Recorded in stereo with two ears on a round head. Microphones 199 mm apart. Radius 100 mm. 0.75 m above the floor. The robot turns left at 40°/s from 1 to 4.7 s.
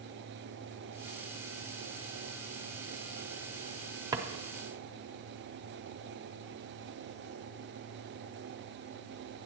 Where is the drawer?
15° right (ahead or behind), 0.6 m; by 4.3 s 20° right (ahead or behind), 0.6 m.